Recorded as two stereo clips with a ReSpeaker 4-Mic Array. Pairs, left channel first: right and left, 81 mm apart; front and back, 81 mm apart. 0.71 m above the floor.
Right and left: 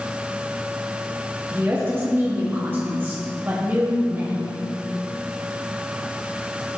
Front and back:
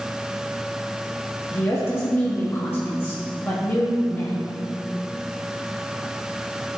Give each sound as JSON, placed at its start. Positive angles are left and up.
{"t": 1.5, "sound": "a woman speaking", "azimuth_deg": 45, "distance_m": 1.4}